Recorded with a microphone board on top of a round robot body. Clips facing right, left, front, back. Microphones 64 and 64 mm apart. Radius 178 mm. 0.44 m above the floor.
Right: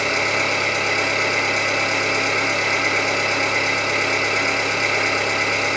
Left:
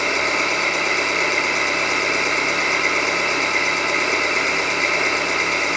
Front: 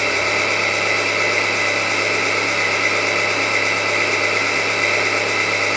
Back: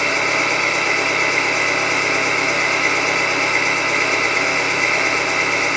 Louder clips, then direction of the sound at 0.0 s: Even, back 1 dB; 110° left.